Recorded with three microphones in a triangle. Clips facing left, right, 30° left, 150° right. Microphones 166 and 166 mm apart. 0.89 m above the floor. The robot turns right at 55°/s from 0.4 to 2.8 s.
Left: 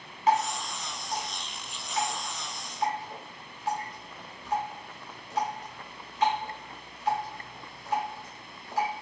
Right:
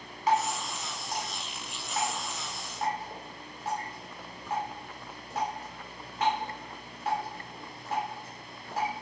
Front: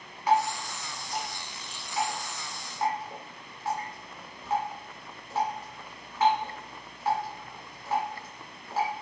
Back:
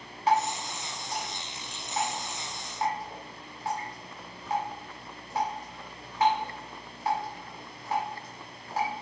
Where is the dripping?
150° left, 1.8 m; by 8.9 s 75° right, 1.8 m.